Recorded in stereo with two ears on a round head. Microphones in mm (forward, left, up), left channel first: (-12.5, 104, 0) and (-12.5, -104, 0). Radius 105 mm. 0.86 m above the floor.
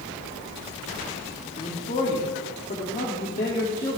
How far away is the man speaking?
About 2.5 m.